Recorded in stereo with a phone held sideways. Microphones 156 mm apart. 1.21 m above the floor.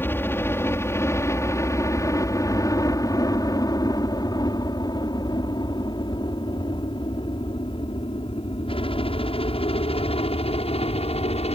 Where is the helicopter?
15° left (ahead or behind); by 11.6 s 40° left (ahead or behind).